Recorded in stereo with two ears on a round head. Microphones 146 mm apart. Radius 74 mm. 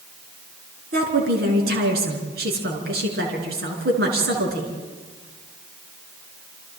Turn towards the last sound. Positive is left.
turn(degrees=-60)  # may be behind; listen again after turning